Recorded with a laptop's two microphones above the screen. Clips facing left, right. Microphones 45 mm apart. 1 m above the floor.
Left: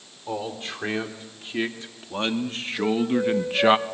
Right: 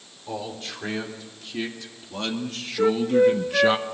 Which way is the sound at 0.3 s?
30° left (ahead or behind).